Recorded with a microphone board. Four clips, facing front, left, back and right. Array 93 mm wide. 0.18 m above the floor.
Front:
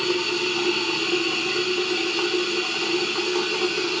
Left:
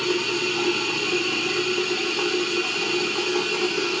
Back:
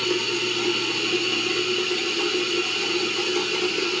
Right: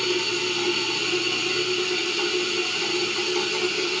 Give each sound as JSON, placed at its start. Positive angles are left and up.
{"t": 0.0, "sound": "running water", "azimuth_deg": 40, "distance_m": 1.2}